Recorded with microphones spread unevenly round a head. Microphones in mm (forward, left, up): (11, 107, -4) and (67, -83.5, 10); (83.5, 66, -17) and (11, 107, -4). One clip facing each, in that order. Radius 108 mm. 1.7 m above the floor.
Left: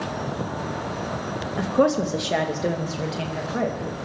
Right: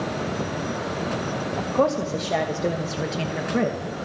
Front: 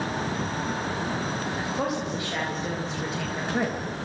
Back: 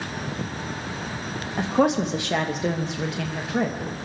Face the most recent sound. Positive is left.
turn(degrees=-130)